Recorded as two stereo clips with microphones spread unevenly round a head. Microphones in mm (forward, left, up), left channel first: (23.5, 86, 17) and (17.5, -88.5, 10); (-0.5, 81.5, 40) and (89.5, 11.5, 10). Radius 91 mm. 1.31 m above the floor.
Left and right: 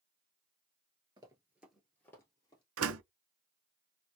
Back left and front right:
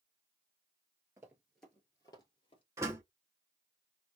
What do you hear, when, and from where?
1.2 s running footsteps: 120° right, 1.3 m; by 2.6 s 150° left, 1.9 m
2.8 s a door slam: 115° right, 0.6 m